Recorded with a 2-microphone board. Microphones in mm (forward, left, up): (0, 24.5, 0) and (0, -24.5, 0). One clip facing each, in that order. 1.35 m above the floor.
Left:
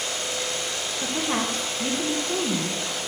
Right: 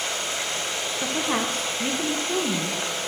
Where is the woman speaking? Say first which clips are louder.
Right 1 dB; 5° right (ahead or behind), 1.1 m.